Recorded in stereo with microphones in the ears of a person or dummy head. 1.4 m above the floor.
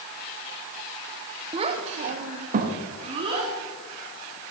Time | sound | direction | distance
1.5 | a child speaking | 30° right (ahead or behind) | 1.1 m